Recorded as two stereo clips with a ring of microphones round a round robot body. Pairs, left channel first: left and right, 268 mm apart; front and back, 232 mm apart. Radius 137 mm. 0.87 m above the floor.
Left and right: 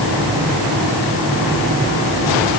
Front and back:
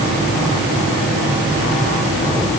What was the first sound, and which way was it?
Only background noise.